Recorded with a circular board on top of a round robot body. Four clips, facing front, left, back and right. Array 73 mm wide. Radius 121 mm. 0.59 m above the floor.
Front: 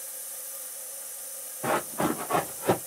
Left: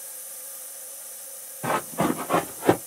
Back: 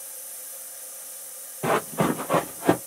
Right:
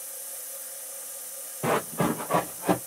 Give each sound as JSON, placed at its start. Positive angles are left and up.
{"t": 1.6, "sound": "running footsteps", "azimuth_deg": -150, "distance_m": 0.7}